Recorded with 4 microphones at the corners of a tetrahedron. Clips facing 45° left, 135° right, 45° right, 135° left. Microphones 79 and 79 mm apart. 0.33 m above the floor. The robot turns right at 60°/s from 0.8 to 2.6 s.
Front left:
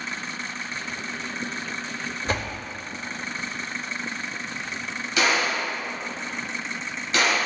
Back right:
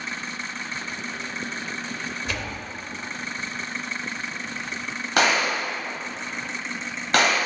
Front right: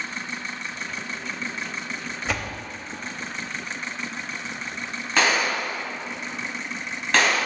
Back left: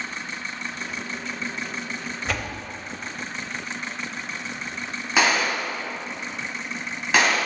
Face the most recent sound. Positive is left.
turn(degrees=-145)